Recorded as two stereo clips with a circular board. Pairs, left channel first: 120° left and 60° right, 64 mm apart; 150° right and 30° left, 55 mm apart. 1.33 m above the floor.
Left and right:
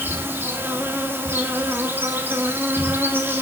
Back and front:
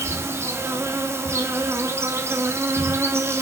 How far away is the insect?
About 3 m.